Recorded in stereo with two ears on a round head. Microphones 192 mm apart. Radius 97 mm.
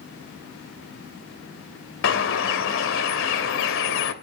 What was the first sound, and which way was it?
A bird, 65° left (ahead or behind).